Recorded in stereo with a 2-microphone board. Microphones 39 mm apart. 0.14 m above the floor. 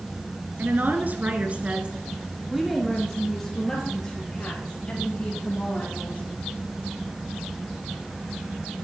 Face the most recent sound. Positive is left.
turn(degrees=30)  # may be behind; listen again after turning